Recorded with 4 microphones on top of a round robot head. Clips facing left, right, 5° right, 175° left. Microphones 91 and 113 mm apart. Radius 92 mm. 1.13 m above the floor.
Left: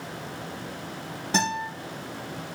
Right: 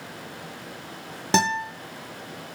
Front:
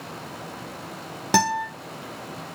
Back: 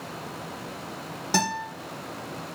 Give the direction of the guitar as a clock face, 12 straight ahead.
2 o'clock.